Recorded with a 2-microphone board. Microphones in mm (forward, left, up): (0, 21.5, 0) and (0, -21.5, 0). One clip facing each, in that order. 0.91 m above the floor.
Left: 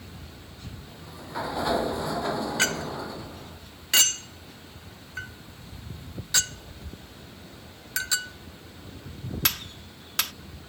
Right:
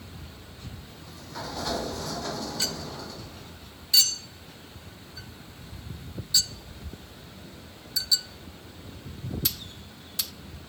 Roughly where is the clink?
Left.